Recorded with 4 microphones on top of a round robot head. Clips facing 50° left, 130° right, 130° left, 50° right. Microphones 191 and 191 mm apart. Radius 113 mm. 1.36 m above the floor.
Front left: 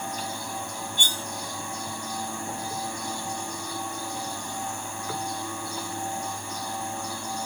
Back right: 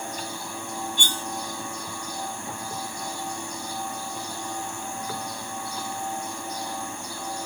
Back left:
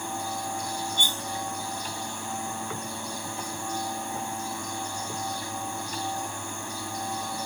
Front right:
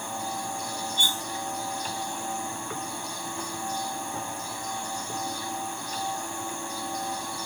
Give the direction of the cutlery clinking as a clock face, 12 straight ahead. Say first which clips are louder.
Back right 2 dB, even; 5 o'clock.